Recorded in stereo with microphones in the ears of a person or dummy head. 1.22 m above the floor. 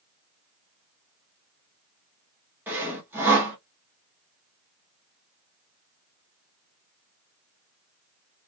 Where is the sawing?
10° right (ahead or behind), 1.3 m.